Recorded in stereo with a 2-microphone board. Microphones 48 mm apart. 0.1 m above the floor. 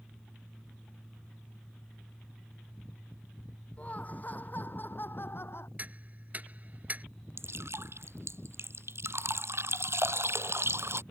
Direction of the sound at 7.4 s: 60° right (ahead or behind).